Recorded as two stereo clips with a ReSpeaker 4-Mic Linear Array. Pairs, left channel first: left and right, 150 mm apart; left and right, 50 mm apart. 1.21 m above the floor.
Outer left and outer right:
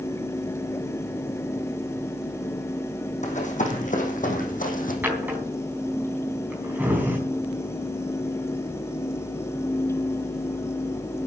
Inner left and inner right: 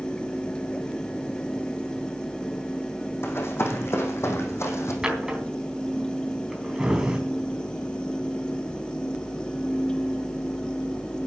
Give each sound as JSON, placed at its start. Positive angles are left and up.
{"t": 3.2, "sound": "running footsteps", "side_deg": 50, "distance_m": 3.5}
{"t": 5.0, "sound": "a drawer", "side_deg": -15, "distance_m": 3.5}